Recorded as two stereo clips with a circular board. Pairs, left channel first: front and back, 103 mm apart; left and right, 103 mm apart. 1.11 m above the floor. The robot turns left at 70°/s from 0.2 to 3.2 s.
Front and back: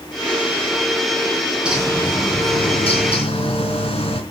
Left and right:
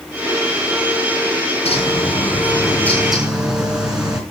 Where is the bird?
100° left, 4 m; by 4.2 s 10° right, 4 m.